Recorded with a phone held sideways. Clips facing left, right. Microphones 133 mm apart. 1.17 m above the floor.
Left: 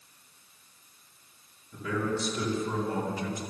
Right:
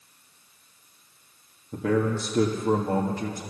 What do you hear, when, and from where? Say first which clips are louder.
1.7 s a man speaking: right 6 dB; 75° right (ahead or behind), 2 m; by 3.4 s 45° right (ahead or behind), 1.8 m